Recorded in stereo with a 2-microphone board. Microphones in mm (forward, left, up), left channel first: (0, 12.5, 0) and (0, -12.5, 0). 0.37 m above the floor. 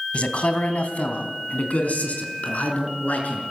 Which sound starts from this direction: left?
A man speaking, at 0.1 s.